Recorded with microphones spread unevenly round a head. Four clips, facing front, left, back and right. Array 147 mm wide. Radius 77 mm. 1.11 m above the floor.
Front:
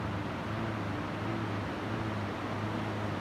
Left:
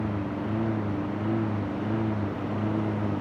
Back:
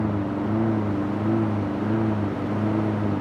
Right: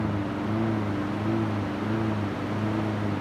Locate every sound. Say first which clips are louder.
0.0 s a lawn mower: right 2 dB, back 12 dB; 175° right; by 3.2 s straight behind